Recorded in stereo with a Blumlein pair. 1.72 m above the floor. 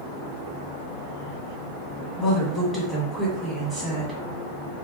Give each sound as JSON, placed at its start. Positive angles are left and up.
{"t": 2.2, "sound": "a woman speaking", "azimuth_deg": -5, "distance_m": 1.3}